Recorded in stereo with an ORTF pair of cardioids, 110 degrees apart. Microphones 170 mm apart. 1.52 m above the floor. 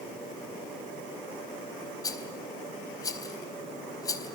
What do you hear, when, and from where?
2.0 s a rattle: 20° left, 3.5 m